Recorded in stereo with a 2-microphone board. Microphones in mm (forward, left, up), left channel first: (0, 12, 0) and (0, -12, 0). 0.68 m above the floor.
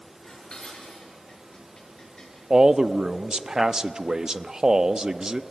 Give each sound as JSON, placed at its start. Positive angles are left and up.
{"t": 0.2, "sound": "dishes clattering", "side_deg": 35, "distance_m": 7.0}
{"t": 2.5, "sound": "a man speaking", "side_deg": -25, "distance_m": 0.7}